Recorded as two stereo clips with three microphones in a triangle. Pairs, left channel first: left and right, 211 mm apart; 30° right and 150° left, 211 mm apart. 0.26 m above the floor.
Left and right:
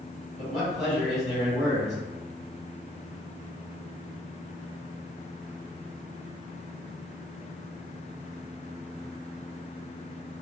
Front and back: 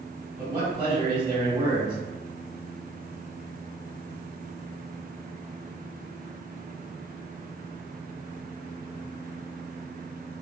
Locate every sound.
0.4 s a man speaking: straight behind, 1.7 m